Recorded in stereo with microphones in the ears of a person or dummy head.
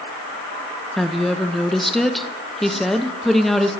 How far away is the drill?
I don't hear a drill.